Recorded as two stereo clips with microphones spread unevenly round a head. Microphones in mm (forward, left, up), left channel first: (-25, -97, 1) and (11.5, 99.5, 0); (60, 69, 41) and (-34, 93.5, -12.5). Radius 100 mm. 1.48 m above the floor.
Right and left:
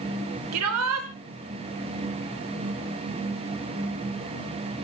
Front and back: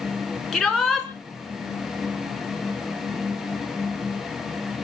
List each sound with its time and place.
0.5 s a shout: 80° left, 3 m